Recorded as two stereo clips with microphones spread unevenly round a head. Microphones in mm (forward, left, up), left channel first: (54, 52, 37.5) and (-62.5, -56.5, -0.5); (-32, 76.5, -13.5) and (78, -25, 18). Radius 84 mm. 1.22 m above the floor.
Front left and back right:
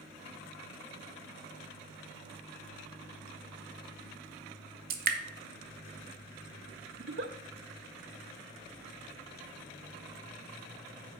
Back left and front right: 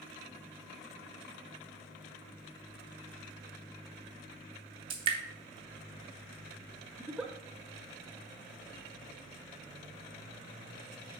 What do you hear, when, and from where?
4.9 s dripping: 105° right, 0.8 m
7.0 s a giggle: 120° right, 0.6 m